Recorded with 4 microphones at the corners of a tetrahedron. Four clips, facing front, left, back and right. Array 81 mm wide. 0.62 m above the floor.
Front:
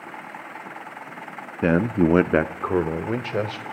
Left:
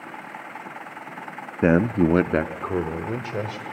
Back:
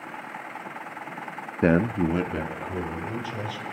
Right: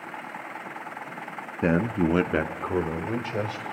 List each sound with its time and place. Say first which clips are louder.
1.6 s a man speaking: left 5 dB, front 2 dB; 115° left, 0.5 m; by 3.6 s straight ahead, 2.5 m